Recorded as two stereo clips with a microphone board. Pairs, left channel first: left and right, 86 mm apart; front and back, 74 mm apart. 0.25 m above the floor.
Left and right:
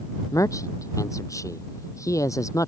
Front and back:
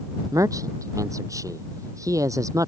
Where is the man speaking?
140° left.